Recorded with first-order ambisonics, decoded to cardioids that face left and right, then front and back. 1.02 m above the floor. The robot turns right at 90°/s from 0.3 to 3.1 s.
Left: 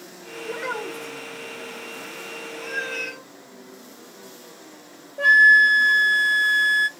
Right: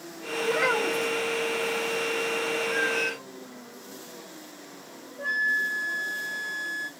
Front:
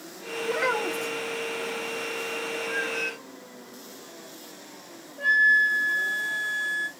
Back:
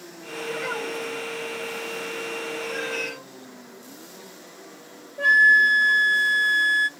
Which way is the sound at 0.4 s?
75° right.